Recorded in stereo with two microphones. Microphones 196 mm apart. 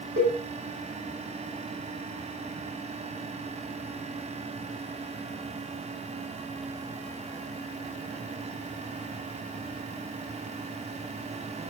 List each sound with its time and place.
0.2 s a cowbell: 80° right, 3.5 m